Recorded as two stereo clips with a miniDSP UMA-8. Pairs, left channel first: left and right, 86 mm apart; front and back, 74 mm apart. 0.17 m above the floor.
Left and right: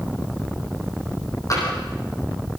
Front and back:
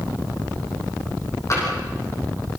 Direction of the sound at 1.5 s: 45° left.